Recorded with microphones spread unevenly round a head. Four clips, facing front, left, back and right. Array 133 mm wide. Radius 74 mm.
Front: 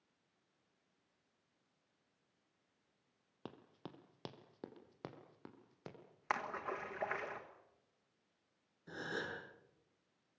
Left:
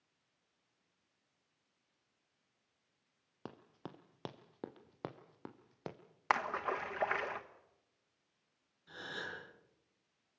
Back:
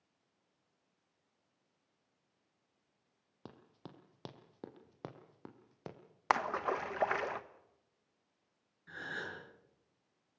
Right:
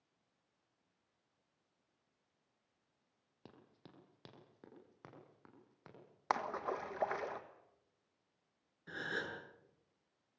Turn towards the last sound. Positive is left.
turn(degrees=-60)